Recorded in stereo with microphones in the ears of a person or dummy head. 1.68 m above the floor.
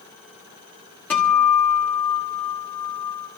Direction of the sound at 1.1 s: 10° left (ahead or behind).